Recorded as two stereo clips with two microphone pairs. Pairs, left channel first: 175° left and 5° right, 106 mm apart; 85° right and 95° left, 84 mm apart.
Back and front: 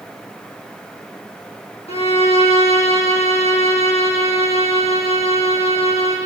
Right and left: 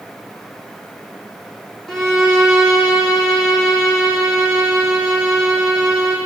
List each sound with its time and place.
1.9 s a violin: 170° right, 6.5 m